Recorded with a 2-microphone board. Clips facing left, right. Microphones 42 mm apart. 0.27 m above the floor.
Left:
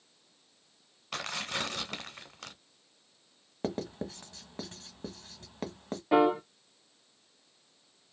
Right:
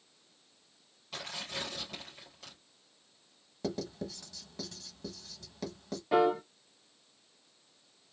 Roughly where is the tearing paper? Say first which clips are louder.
Left 5 dB; left.